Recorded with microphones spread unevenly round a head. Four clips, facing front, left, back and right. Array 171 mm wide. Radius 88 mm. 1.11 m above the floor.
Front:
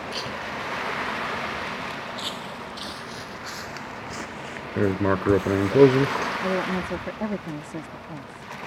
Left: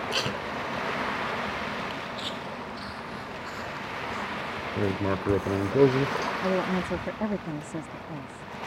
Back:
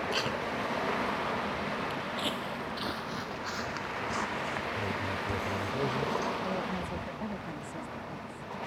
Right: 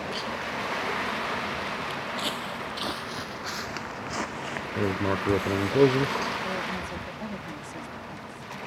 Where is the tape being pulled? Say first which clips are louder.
Left 2 dB, even; 85° left.